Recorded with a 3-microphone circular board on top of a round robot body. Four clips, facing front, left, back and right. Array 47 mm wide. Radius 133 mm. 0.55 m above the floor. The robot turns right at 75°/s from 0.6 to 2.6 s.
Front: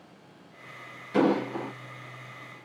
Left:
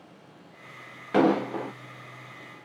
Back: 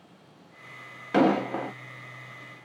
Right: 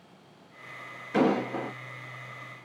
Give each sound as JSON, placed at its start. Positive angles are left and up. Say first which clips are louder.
{"t": 1.1, "sound": "an explosion", "louder": "left 3 dB, back 2 dB", "azimuth_deg": 140, "distance_m": 0.7}